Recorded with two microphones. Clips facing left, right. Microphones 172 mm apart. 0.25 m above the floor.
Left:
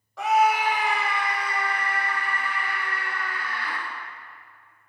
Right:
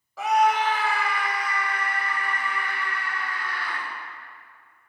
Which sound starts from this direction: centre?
A scream, at 0.2 s.